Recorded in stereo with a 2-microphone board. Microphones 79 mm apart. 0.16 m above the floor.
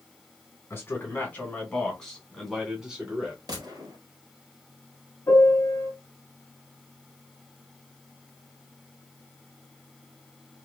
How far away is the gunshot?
About 1.3 m.